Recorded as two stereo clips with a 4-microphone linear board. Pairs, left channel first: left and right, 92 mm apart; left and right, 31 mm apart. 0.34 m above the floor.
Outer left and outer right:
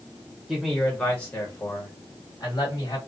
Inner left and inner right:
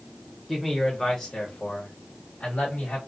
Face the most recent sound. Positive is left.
turn(degrees=50)  # may be behind; listen again after turning